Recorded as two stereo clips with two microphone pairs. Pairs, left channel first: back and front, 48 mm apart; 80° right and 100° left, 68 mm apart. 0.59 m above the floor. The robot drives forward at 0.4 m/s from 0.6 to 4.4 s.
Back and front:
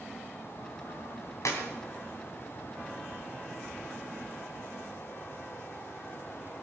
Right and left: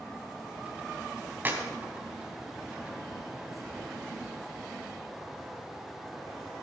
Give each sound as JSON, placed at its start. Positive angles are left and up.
{"t": 1.4, "sound": "a clap", "azimuth_deg": 165, "distance_m": 3.0}